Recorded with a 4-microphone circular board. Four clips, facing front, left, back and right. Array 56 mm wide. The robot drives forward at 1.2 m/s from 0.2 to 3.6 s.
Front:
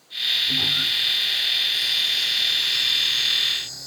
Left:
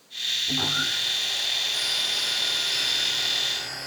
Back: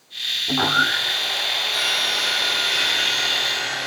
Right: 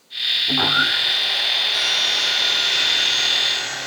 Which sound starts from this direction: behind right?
Sawing, at 0.5 s.